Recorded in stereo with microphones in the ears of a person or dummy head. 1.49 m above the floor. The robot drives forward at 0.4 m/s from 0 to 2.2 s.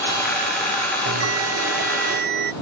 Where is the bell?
65° right (ahead or behind); by 2.5 s 60° right (ahead or behind).